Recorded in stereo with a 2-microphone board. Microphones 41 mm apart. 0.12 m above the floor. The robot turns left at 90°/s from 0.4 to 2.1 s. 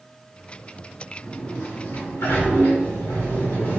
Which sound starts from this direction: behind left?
A sliding door, at 1.2 s.